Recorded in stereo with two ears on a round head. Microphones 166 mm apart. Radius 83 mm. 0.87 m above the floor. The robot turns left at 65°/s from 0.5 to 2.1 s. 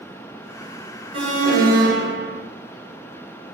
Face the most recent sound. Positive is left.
turn(degrees=-95)